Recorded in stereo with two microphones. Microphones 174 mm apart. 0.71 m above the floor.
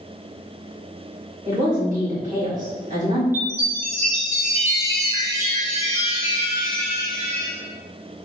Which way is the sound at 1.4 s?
55° right (ahead or behind).